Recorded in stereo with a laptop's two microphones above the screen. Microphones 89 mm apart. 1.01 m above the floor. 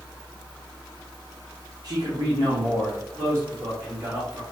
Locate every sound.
1.8 s a man speaking: 45° right (ahead or behind), 1.0 m; by 4.4 s 30° right (ahead or behind), 2 m